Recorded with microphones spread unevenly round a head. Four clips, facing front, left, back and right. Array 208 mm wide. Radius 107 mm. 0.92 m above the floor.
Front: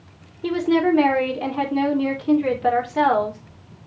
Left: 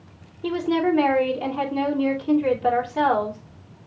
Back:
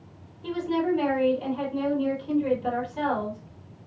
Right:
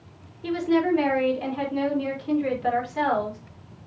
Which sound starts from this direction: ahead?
A woman speaking, at 0.4 s.